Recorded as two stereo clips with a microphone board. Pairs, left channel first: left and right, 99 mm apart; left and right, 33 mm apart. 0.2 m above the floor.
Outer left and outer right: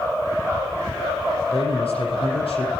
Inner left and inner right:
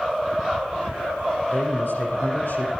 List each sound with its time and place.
1.5 s a man speaking: 75° left (ahead or behind), 7.5 m